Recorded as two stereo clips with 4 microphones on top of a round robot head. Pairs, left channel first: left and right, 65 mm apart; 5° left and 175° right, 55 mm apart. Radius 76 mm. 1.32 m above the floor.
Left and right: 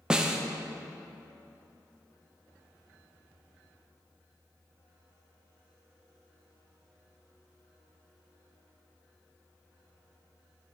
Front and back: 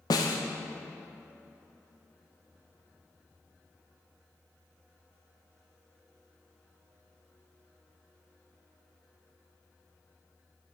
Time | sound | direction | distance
0.1 | a snare drum | 10° right | 0.6 m